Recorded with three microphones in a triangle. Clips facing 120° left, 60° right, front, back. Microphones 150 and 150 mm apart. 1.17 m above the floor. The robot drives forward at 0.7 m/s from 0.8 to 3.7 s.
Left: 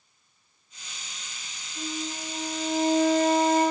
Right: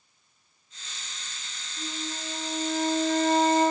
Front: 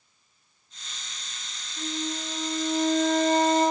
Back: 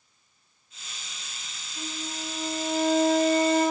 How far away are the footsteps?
No footsteps in this recording.